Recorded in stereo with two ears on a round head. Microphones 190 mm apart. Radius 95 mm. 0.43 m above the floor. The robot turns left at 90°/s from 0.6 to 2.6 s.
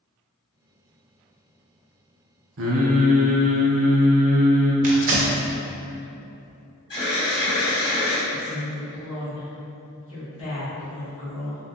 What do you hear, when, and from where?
2.6 s singing: 65° right (ahead or behind), 0.6 m
4.8 s tearing paper: 35° right (ahead or behind), 0.5 m
6.9 s an alarm: 20° left (ahead or behind), 1.7 m
8.3 s a woman speaking: 25° left (ahead or behind), 1.7 m